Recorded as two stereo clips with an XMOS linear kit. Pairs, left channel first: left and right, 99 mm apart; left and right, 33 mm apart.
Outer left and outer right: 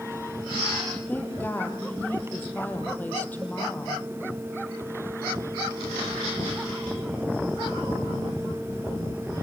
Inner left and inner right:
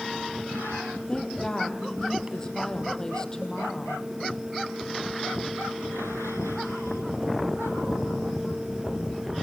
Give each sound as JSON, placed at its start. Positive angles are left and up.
{"t": 1.1, "sound": "a woman speaking", "side_deg": 20, "distance_m": 4.5}